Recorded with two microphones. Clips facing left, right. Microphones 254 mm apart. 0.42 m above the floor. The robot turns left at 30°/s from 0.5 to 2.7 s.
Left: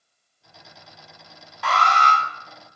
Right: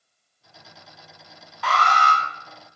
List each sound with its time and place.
1.6 s an alarm: centre (ahead or behind), 2 m; by 2.2 s 10° right (ahead or behind), 2 m